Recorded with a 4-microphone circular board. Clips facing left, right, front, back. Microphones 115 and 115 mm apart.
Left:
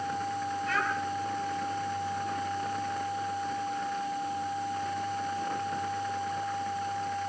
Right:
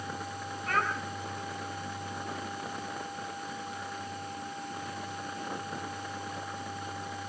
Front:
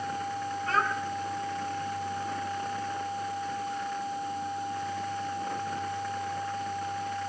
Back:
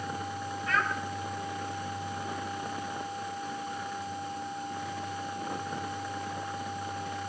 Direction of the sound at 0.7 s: 55° right.